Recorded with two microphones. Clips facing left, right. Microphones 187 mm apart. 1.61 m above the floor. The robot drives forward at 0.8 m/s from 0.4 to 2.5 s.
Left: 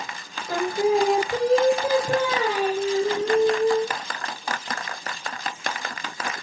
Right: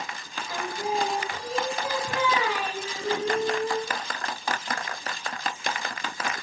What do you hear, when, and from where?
0.5 s singing: 55° left (ahead or behind), 1.0 m; by 4.0 s 40° left (ahead or behind), 1.3 m